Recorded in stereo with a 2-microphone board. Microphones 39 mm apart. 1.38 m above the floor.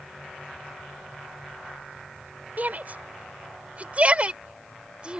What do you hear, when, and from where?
2.6 s a shout: 40° right (ahead or behind); by 5.2 s 25° right (ahead or behind)